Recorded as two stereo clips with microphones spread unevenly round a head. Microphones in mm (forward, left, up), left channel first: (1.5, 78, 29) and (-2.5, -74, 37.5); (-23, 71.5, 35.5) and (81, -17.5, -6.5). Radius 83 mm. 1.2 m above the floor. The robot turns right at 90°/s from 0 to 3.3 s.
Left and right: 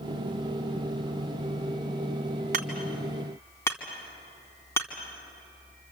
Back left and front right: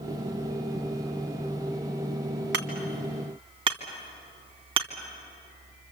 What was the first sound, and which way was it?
Hammering, 55° right.